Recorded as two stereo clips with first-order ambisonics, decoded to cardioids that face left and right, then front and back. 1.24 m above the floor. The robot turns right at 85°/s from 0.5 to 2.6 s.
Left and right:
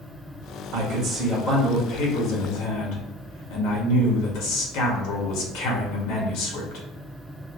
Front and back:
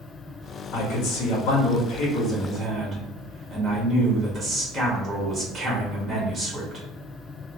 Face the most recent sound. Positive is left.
turn(degrees=105)